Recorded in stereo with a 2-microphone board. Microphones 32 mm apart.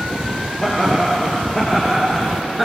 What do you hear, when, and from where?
0.6 s laughter: 10° left (ahead or behind), 4 m; by 2.7 s 5° left (ahead or behind), 2.5 m